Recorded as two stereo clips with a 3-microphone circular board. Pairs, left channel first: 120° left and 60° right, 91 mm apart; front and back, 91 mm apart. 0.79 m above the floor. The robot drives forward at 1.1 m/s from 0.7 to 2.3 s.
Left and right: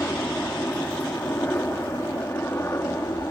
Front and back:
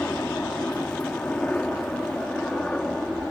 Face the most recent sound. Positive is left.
turn(degrees=75)